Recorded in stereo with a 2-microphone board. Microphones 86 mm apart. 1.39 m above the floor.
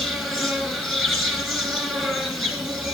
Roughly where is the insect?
Centre.